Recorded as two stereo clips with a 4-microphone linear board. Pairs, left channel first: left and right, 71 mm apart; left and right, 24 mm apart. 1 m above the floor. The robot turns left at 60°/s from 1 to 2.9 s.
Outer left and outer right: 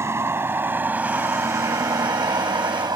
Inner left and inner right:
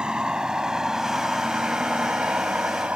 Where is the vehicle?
40° right (ahead or behind); by 3.0 s 85° right.